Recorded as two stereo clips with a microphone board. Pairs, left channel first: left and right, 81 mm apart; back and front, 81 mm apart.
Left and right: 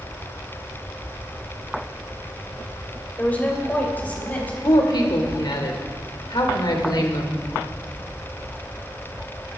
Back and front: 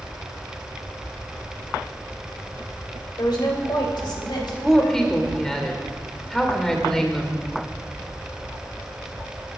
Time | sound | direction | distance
3.2 | a woman speaking | 160° left | 3 m
4.6 | a woman speaking | 100° left | 2.5 m